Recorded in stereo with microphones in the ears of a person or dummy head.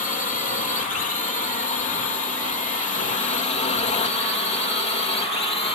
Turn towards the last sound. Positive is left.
turn(degrees=20)  # may be behind; listen again after turning